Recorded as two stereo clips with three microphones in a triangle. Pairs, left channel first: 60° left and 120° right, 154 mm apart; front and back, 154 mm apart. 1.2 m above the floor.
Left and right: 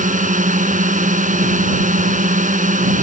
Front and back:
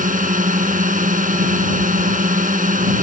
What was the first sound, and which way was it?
A drone, 150° right.